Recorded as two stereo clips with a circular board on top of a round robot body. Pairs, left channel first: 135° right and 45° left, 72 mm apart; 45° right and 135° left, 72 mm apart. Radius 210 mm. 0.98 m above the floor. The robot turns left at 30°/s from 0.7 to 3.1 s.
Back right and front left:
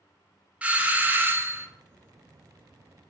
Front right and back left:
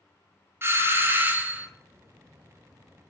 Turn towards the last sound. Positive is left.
turn(degrees=35)